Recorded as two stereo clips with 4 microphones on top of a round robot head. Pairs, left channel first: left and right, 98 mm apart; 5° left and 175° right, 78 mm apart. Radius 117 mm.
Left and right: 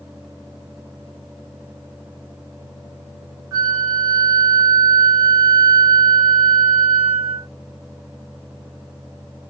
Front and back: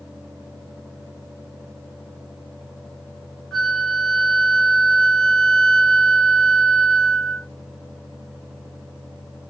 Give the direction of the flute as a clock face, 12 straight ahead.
2 o'clock.